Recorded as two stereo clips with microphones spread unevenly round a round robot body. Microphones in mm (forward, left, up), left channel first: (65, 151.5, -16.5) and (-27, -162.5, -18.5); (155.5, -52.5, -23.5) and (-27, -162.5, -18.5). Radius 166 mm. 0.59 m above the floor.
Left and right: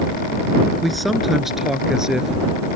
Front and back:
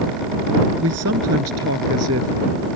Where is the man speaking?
165° left.